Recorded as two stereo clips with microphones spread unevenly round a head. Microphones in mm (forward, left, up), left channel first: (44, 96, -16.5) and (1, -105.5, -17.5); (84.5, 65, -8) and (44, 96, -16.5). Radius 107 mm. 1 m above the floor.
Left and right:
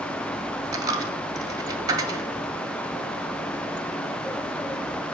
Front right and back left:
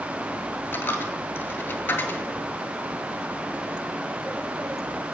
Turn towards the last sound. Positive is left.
turn(degrees=-35)